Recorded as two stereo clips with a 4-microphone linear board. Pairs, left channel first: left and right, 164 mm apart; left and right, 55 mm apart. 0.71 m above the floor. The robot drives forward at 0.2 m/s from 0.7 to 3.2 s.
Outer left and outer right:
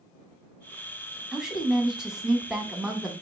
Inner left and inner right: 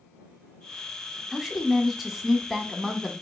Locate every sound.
1.3 s a woman speaking: 5° right (ahead or behind), 1.1 m